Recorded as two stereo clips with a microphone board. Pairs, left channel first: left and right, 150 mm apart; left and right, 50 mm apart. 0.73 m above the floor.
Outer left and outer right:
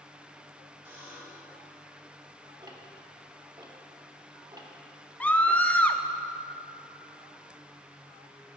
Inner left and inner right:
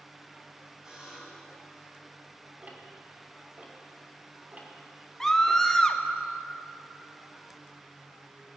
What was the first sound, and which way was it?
A buzzer, 20° right (ahead or behind).